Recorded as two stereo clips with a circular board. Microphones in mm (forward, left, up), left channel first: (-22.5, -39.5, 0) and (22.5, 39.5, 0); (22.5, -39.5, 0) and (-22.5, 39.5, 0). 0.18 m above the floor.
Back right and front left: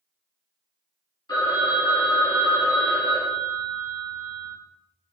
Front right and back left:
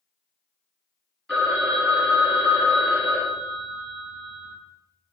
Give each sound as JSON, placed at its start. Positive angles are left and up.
{"t": 1.3, "sound": "a phone ringing", "azimuth_deg": -140, "distance_m": 2.0}